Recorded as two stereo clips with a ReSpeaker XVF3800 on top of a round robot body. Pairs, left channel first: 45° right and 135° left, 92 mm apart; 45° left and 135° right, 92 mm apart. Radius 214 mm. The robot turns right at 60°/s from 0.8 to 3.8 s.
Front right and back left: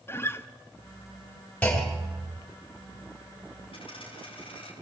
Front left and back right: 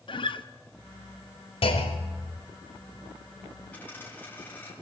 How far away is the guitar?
About 1.0 m.